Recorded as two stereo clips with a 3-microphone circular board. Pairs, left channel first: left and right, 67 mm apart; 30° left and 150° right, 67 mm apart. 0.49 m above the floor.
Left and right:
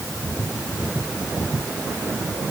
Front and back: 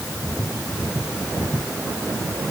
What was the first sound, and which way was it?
Only background noise.